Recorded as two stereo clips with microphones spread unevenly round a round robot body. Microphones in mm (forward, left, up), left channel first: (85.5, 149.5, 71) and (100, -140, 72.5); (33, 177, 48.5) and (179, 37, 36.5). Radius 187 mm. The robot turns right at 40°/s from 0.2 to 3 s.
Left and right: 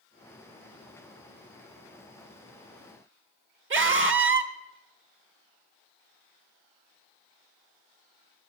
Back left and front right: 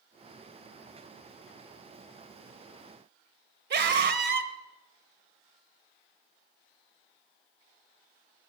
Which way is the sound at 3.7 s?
45° right.